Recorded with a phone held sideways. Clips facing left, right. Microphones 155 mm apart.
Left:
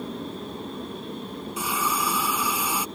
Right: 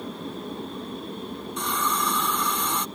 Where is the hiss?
5° left (ahead or behind).